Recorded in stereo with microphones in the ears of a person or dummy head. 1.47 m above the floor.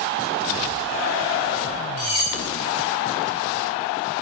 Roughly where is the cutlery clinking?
Left.